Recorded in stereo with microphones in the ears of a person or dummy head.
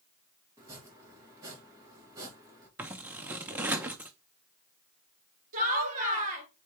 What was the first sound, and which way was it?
Chopping, 20° right (ahead or behind).